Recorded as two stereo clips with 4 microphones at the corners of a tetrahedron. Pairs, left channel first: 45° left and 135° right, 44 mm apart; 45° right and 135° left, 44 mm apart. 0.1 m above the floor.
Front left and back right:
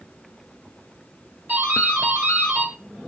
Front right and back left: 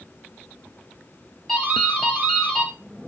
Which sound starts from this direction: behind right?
A doorbell, at 1.5 s.